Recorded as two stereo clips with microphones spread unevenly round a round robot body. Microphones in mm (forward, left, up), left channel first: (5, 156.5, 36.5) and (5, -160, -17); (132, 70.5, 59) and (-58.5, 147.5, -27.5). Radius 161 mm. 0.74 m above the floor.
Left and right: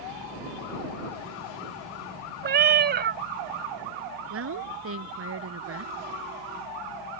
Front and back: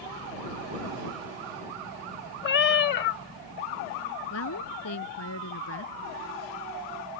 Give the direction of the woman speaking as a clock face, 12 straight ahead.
1 o'clock.